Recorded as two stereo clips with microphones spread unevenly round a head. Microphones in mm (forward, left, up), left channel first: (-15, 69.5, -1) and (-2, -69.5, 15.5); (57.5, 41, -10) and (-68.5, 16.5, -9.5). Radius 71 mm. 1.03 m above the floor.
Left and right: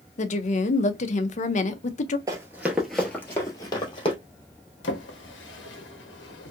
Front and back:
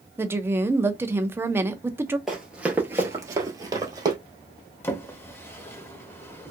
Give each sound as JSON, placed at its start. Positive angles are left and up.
{"t": 0.2, "sound": "a woman speaking", "azimuth_deg": 120, "distance_m": 0.5}
{"t": 2.3, "sound": "running footsteps", "azimuth_deg": -80, "distance_m": 1.1}
{"t": 4.8, "sound": "a drawer", "azimuth_deg": 85, "distance_m": 0.8}